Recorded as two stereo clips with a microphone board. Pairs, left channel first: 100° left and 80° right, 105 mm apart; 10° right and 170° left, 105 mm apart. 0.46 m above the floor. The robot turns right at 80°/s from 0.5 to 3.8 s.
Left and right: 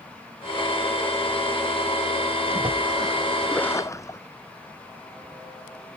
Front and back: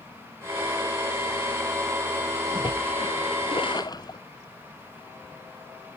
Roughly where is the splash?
Ahead right.